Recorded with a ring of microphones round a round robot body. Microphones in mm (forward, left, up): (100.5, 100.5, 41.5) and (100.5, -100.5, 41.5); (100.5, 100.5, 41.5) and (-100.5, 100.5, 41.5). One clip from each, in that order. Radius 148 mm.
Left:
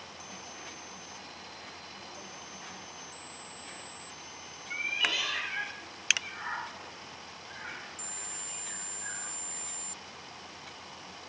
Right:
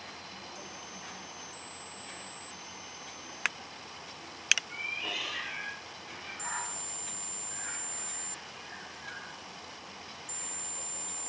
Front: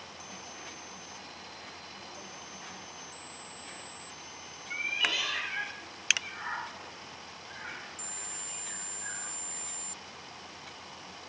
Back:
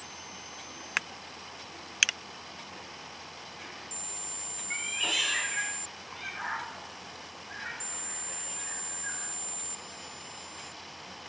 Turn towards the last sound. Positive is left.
turn(degrees=130)